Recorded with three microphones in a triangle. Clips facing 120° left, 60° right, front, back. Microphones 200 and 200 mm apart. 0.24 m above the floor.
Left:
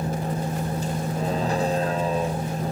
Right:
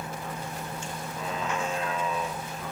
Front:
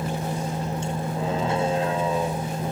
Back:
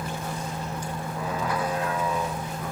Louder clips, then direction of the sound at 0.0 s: Left 9 dB, front 5 dB; 65° left.